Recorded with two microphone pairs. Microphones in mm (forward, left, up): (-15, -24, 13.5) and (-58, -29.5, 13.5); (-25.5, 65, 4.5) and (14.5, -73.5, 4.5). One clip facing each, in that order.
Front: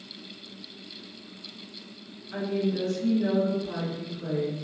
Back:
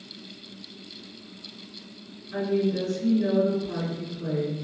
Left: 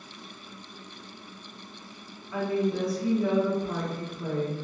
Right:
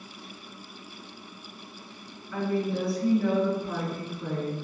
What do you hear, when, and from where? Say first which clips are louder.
2.3 s a woman speaking: back 3 dB, left 1 dB; 60° left, 1.1 m